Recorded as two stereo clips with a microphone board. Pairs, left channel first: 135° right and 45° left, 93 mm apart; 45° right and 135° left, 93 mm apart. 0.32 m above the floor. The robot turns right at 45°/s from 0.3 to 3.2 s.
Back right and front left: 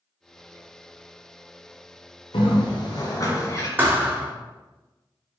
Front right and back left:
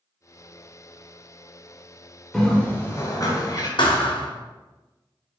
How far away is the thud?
About 1.3 m.